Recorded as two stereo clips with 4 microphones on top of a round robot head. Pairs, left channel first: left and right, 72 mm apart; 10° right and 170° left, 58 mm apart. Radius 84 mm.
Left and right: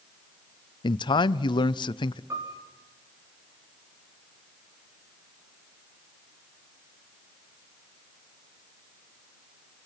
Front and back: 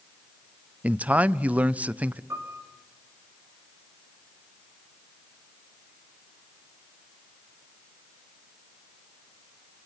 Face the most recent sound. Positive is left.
turn(degrees=-135)